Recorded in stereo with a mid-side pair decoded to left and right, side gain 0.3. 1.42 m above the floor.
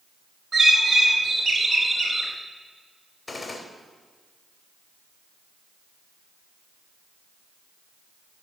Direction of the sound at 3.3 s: 30° left.